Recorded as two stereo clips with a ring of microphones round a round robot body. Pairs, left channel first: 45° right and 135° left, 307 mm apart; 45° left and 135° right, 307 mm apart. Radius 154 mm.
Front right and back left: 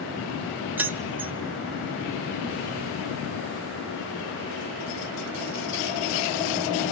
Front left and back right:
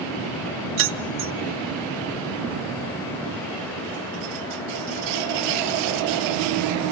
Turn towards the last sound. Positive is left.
turn(degrees=-145)